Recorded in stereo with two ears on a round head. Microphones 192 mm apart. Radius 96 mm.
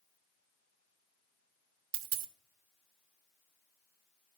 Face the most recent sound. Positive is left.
turn(degrees=-55)  # may be behind; listen again after turning